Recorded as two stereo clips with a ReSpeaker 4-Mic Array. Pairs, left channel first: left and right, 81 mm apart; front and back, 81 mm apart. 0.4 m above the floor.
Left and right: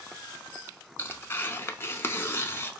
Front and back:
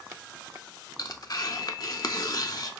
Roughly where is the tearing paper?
Ahead left.